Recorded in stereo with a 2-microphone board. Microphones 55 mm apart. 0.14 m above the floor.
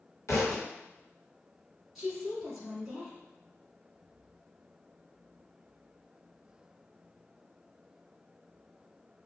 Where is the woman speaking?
5° right (ahead or behind), 1.4 m.